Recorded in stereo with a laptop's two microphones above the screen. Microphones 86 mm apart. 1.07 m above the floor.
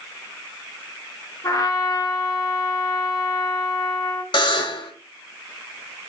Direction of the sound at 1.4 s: 40° left (ahead or behind).